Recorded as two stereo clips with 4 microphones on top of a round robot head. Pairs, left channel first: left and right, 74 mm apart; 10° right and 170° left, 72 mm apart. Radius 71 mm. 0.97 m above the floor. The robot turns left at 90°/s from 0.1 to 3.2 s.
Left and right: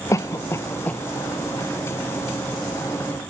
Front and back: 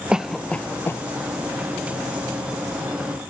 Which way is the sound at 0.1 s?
100° left.